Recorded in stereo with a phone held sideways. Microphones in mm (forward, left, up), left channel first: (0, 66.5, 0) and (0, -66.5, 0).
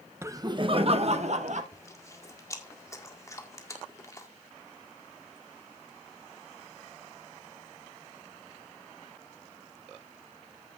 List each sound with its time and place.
0.2 s laughter: 20° right (ahead or behind), 0.9 m; by 1.6 s 60° right (ahead or behind), 1.7 m
1.7 s chewing: 25° left (ahead or behind), 1.8 m